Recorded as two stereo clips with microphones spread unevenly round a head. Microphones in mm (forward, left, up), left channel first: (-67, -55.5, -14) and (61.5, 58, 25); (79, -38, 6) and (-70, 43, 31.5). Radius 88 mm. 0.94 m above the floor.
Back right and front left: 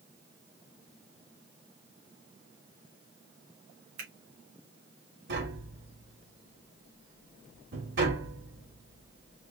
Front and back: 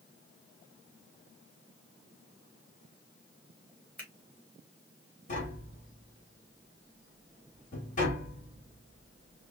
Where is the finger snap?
50° left, 2.5 m.